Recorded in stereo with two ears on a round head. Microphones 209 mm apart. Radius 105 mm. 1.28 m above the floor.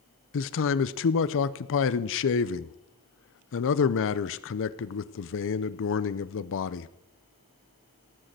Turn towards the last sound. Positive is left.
turn(degrees=55)  # may be behind; listen again after turning